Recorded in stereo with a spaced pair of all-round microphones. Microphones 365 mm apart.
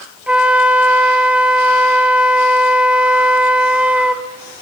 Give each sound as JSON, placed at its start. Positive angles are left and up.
{"t": 0.3, "sound": "a flute", "side_deg": -5, "distance_m": 1.2}